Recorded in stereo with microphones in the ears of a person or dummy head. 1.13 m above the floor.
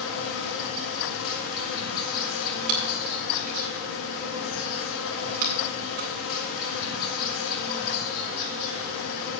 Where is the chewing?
50° right (ahead or behind), 2 m.